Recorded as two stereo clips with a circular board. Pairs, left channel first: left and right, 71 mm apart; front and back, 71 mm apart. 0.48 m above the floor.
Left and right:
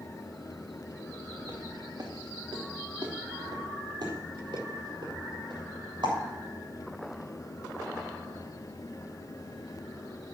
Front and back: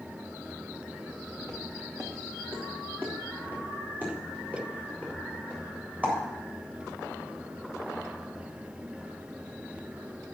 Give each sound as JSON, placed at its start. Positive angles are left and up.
{"t": 1.4, "sound": "footsteps", "azimuth_deg": -125, "distance_m": 3.0}